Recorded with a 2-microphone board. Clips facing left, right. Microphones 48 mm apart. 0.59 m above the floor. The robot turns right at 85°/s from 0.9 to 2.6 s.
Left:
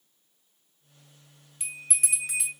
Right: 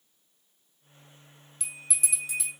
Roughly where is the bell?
Ahead.